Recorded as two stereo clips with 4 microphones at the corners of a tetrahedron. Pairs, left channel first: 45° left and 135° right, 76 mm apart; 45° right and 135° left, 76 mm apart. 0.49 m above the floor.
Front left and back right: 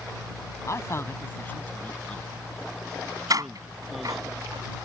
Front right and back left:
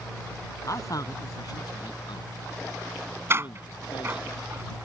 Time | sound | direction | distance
0.7 | a man speaking | straight ahead | ?
3.3 | a door slam | 170° right | ?